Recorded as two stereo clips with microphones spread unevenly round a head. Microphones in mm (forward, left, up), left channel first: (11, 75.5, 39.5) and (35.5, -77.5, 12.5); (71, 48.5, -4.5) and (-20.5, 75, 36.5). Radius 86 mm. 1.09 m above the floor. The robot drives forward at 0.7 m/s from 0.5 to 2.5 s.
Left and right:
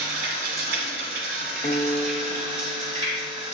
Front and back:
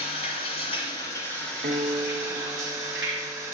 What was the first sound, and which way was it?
Running water, 70° right.